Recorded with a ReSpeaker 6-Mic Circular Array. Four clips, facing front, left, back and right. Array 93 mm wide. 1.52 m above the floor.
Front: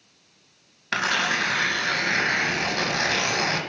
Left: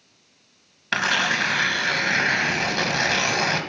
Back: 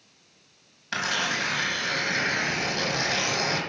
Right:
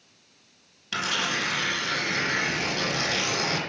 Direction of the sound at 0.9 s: 60° left.